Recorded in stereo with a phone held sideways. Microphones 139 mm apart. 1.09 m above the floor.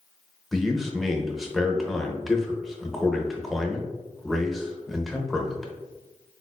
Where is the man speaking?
Centre (ahead or behind), 0.6 m.